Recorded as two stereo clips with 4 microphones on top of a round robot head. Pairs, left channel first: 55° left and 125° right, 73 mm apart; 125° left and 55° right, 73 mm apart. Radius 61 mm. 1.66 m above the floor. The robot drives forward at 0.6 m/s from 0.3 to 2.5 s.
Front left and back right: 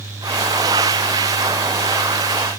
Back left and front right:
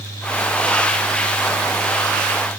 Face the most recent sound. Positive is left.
No sound to turn to.